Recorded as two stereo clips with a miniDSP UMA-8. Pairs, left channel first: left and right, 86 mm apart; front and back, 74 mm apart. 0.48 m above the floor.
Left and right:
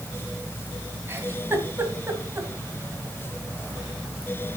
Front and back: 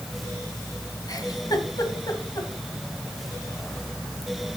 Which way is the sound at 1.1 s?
30° right.